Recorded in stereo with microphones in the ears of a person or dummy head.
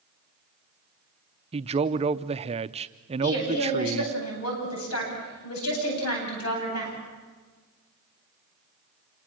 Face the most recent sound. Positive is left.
turn(degrees=85)